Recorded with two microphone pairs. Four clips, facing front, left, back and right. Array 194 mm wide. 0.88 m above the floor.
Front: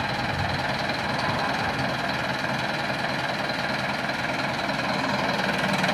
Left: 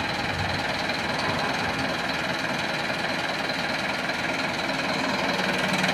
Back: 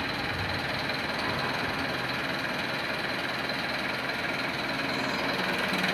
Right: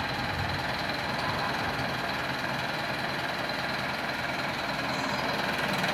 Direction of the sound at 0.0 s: 35° left.